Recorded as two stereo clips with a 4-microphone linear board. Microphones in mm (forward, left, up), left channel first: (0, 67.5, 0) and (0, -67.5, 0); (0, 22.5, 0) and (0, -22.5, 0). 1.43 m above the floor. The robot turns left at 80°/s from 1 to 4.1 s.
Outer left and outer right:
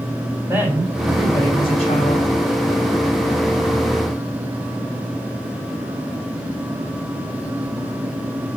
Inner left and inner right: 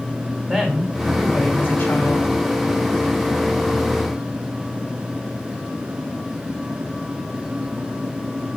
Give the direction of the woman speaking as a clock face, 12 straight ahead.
5 o'clock.